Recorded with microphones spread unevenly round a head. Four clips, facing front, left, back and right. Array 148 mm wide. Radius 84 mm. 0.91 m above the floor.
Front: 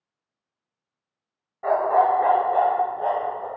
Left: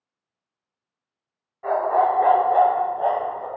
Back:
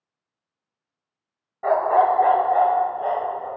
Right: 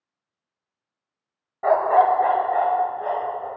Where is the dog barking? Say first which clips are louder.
Right 3 dB, back 1 dB; 100° right, 0.9 m; by 3.5 s 85° left, 1.7 m.